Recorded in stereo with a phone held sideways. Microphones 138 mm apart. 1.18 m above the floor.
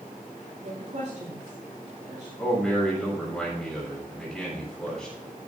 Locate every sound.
0.6 s a woman speaking: 55° right (ahead or behind), 7 m
2.4 s a man speaking: 5° left (ahead or behind), 6.5 m